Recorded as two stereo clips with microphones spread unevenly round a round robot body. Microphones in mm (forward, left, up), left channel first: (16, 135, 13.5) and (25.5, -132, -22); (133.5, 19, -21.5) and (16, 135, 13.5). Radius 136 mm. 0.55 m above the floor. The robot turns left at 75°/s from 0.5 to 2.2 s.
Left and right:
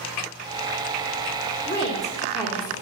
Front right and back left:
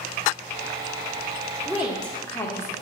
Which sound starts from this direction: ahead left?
A woman speaking, at 1.6 s.